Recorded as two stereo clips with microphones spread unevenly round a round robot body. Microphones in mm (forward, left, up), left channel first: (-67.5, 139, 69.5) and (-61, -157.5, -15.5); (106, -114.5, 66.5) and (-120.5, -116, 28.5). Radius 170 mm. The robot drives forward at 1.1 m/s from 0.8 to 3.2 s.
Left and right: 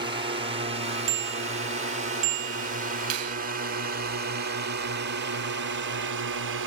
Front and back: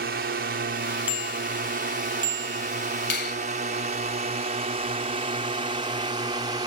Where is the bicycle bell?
95° right; by 2.7 s 115° right.